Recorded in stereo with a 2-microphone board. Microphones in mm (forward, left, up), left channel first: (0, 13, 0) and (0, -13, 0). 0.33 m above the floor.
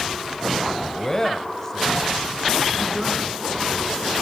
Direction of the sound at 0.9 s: 25° left (ahead or behind).